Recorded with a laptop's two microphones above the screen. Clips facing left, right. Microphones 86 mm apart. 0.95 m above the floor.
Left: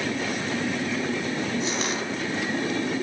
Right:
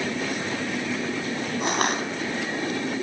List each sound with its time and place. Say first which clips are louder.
1.6 s crushing: right 3 dB; 55° right (ahead or behind), 4.5 m